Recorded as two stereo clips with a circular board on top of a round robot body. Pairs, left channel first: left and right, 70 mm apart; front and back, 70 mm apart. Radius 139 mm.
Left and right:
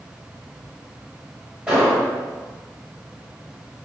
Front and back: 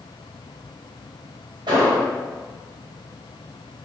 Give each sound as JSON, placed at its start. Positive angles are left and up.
{"t": 1.7, "sound": "an explosion", "azimuth_deg": -165, "distance_m": 1.9}